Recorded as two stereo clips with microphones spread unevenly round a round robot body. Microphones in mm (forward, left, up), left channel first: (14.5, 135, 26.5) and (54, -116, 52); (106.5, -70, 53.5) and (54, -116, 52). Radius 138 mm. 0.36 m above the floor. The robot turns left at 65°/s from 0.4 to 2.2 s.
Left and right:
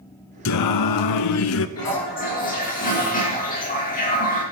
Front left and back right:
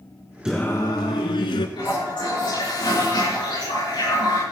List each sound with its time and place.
0.5 s singing: 135° left, 0.8 m; by 1.7 s 55° left, 0.8 m
1.8 s a toilet flushing: 70° left, 6.5 m; by 4.4 s 40° left, 6.5 m